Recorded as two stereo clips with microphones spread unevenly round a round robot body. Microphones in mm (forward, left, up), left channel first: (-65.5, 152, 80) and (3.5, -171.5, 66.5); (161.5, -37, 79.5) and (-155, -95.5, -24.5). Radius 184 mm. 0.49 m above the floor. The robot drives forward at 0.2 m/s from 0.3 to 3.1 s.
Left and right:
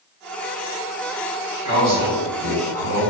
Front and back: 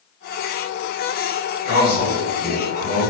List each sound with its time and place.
1.6 s a man speaking: 110° right, 1.6 m; by 3.1 s 120° right, 1.7 m